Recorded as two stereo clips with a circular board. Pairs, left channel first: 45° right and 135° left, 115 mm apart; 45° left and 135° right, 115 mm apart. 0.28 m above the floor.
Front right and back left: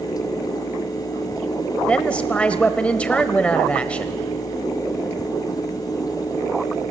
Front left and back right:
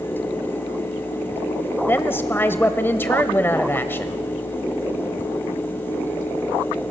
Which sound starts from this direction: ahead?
A woman speaking, at 1.9 s.